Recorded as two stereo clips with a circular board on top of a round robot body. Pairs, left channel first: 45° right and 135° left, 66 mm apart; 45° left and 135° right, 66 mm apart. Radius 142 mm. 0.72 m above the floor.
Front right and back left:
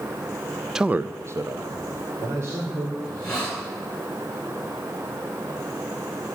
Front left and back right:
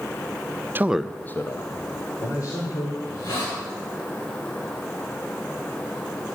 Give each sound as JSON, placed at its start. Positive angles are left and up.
{"t": 0.8, "sound": "a man speaking", "azimuth_deg": -145, "distance_m": 0.7}
{"t": 3.0, "sound": "a hiss", "azimuth_deg": 30, "distance_m": 8.5}